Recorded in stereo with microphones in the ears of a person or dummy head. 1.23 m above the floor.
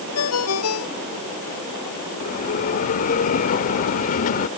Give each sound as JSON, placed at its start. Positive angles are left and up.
{"t": 0.1, "sound": "a ringtone", "side_deg": 75}
{"t": 2.2, "sound": "a bell", "side_deg": 35}